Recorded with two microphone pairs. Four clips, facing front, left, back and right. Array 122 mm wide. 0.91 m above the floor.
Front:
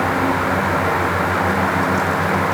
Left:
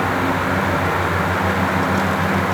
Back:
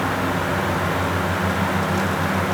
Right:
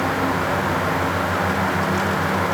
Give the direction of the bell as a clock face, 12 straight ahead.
No bell in this recording.